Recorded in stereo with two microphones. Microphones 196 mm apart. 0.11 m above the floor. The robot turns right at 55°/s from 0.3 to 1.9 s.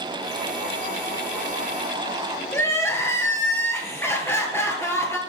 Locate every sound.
2.5 s crying: 10° left (ahead or behind), 1.5 m